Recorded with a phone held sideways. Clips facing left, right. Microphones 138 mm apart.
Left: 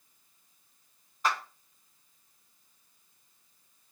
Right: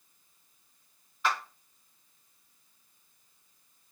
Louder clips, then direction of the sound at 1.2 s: Even; 40° left (ahead or behind).